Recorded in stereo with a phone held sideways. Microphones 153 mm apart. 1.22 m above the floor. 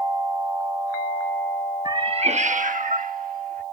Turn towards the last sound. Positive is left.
turn(degrees=-65)  # may be behind; listen again after turning